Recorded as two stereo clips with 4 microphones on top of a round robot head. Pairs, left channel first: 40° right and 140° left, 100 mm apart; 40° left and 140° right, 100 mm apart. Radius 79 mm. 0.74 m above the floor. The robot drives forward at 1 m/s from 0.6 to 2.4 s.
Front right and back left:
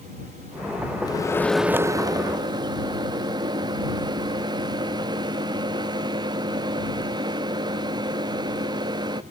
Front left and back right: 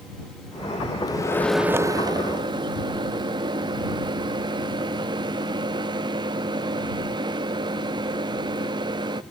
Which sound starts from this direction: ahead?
A microwave, at 1.1 s.